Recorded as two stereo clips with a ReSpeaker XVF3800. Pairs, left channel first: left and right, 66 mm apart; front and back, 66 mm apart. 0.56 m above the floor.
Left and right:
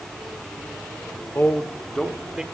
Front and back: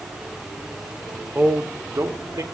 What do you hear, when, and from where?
1.4 s a man speaking: 125° left, 0.9 m; by 2.4 s 170° right, 1.1 m